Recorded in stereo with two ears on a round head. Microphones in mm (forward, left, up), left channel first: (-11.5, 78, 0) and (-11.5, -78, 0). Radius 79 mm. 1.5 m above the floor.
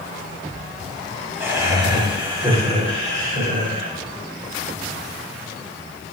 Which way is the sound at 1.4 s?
15° right (ahead or behind).